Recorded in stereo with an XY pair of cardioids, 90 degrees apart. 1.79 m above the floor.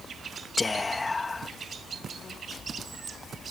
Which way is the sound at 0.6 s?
25° left.